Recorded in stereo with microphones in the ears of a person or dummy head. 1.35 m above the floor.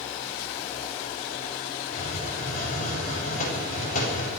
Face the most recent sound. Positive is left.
turn(degrees=45)  # may be behind; listen again after turning